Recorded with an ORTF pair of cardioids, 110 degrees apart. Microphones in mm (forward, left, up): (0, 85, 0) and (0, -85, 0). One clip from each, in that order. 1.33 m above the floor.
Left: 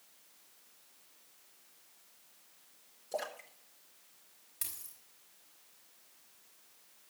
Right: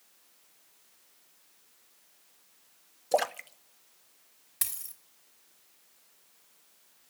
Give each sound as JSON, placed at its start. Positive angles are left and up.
{"t": 3.1, "sound": "a splash", "azimuth_deg": -65, "distance_m": 0.7}
{"t": 4.6, "sound": "a dropped coin", "azimuth_deg": -60, "distance_m": 2.5}